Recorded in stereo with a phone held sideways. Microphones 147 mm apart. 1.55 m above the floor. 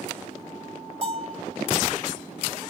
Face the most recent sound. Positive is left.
turn(degrees=-40)  # may be behind; listen again after turning